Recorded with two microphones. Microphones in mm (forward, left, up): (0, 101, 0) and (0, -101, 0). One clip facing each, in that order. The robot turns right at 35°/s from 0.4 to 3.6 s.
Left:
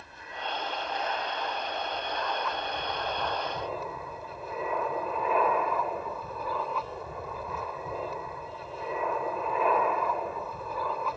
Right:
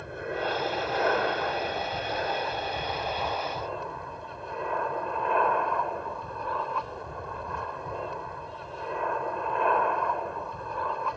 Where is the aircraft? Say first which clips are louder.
Right 10 dB; 110° right; by 11.2 s 5° left.